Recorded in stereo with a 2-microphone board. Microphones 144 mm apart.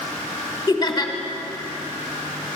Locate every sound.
0.7 s laughter: 30° left (ahead or behind), 1.6 m